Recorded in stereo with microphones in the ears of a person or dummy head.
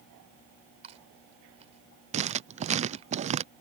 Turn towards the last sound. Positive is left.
turn(degrees=-30)  # may be behind; listen again after turning